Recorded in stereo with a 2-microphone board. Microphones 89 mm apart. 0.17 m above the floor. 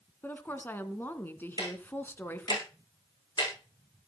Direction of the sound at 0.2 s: 20° left (ahead or behind).